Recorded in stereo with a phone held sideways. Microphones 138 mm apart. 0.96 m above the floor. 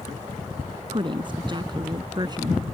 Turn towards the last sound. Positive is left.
turn(degrees=-30)  # may be behind; listen again after turning